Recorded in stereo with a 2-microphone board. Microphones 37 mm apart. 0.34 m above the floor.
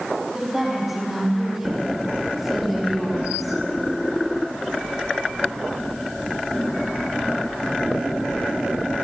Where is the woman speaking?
15° right (ahead or behind), 7.5 m; by 3.6 s centre (ahead or behind), 6.5 m.